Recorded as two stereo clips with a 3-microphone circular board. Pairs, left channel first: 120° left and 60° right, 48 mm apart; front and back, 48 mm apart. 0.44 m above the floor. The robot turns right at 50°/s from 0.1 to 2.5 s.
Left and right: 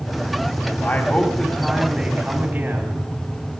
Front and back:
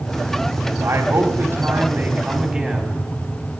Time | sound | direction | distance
0.8 | a man speaking | 170° left | 3 m